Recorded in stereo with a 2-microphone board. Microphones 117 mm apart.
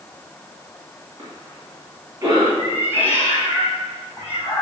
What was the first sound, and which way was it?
A cough, 30° right (ahead or behind).